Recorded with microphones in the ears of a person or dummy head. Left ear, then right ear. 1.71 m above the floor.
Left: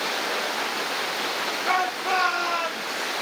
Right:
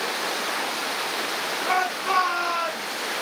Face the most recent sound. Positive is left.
turn(degrees=5)  # may be behind; listen again after turning